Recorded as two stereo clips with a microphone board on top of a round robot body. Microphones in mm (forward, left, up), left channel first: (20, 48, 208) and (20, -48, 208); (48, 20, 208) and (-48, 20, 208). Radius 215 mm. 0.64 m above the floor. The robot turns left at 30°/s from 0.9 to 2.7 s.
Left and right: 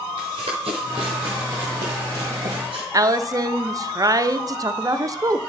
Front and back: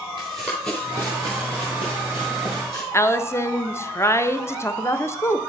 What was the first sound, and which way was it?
Running footsteps, 135° right.